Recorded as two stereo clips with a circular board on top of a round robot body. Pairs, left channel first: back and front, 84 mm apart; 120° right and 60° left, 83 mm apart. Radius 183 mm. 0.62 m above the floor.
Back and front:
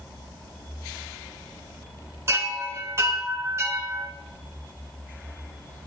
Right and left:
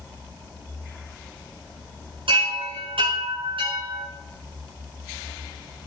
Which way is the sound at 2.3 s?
55° left.